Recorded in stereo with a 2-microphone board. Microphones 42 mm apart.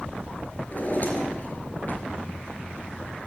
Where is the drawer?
50° left (ahead or behind), 2.5 m.